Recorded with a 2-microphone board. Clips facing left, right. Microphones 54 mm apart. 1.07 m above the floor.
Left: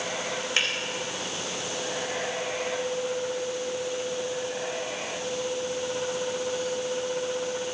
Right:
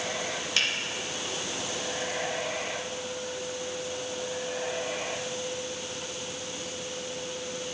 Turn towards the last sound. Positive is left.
turn(degrees=25)  # may be behind; listen again after turning